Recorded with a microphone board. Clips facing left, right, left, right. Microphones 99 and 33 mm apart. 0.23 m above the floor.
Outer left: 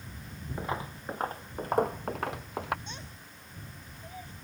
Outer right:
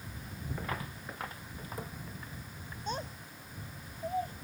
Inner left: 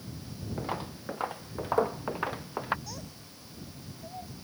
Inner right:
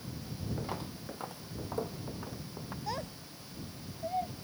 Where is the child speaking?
40° right (ahead or behind).